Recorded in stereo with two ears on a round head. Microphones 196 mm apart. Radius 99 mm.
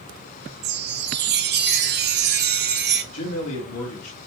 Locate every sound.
0.6 s a chime: 50° right (ahead or behind), 0.6 m
3.1 s a man speaking: 75° left (ahead or behind), 1.5 m